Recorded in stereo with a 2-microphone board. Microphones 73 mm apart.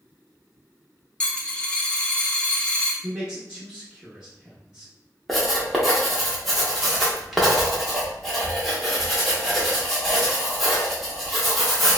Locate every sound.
1.2 s a dropped coin: 15° left (ahead or behind), 0.6 m
3.0 s a man speaking: 10° right (ahead or behind), 0.7 m
5.3 s writing: centre (ahead or behind), 0.7 m